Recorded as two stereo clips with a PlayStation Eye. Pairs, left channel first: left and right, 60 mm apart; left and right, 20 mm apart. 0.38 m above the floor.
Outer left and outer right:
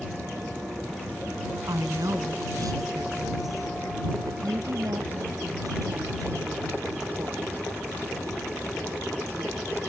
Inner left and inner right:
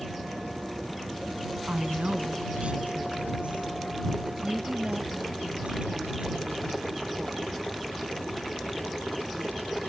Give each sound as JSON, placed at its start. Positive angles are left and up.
{"t": 1.7, "sound": "a woman speaking", "side_deg": -70}